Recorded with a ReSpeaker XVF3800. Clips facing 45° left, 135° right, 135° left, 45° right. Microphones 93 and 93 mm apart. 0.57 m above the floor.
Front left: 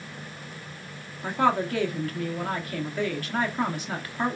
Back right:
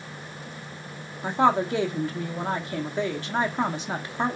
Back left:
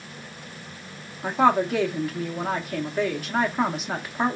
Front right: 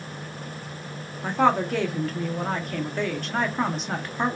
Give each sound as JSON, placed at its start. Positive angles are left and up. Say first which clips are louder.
{"t": 1.2, "sound": "a woman speaking", "louder": "back right 2 dB, back left 1 dB", "azimuth_deg": -145, "distance_m": 0.7}